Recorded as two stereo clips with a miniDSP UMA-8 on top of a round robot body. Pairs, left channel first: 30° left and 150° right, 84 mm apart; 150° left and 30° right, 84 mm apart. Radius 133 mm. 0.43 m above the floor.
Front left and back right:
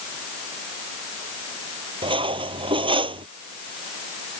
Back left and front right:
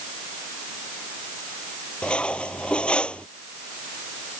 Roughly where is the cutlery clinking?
Behind right.